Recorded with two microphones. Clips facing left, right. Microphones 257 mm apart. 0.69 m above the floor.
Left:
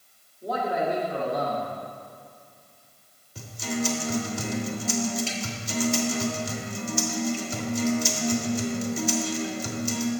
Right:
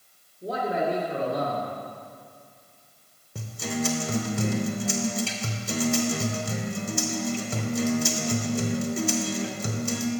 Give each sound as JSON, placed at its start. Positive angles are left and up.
{"t": 0.4, "sound": "a man speaking", "side_deg": -30, "distance_m": 1.3}
{"t": 3.4, "sound": "a guitar", "side_deg": -60, "distance_m": 0.8}